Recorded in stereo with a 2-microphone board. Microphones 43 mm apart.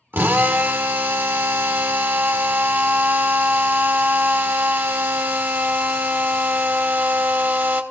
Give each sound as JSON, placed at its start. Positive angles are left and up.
{"t": 0.1, "sound": "a drill", "side_deg": -60, "distance_m": 1.0}